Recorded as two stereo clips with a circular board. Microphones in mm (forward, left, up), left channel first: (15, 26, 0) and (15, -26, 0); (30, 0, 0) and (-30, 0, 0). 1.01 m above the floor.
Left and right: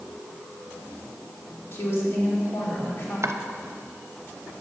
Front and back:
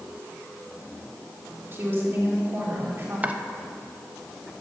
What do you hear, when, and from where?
1.7 s a woman speaking: 130° left, 2.5 m
3.2 s chopping: 115° right, 0.7 m